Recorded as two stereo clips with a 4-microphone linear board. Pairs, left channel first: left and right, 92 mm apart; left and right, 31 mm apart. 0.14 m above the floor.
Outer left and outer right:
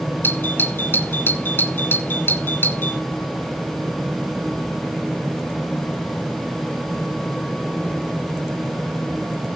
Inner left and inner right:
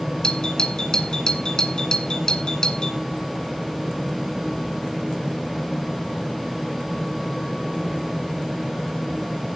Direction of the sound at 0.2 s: 20° left (ahead or behind).